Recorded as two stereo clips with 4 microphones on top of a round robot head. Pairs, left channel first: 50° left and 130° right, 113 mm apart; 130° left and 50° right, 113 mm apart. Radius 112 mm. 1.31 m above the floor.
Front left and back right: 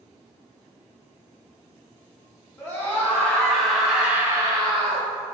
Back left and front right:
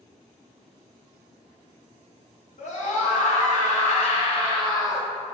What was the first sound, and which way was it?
A scream, 125° left.